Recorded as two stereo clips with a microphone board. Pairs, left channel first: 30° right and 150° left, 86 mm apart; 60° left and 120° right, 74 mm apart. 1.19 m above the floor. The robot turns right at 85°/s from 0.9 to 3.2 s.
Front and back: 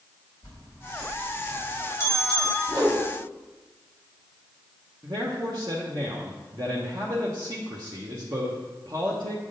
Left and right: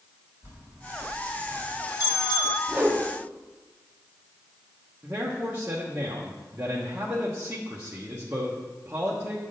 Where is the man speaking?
175° left, 1.1 m.